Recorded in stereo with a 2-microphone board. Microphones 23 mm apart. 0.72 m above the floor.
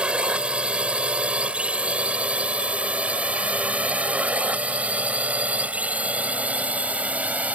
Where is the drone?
45° right (ahead or behind); by 7.6 s 75° right (ahead or behind).